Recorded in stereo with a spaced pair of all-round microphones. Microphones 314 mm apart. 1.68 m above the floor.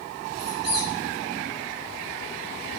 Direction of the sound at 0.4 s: 35° right (ahead or behind).